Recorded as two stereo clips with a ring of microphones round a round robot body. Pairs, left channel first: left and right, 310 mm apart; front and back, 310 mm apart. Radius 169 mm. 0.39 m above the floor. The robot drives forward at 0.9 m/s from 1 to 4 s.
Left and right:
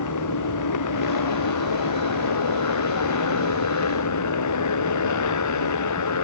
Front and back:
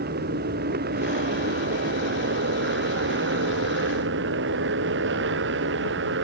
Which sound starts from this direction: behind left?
A motorcycle, at 0.0 s.